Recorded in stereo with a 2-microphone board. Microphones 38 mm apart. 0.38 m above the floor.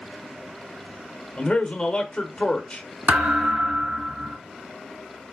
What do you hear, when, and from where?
1.4 s a man speaking: 20° left (ahead or behind), 1.0 m
3.1 s a thud: 35° right (ahead or behind), 1.3 m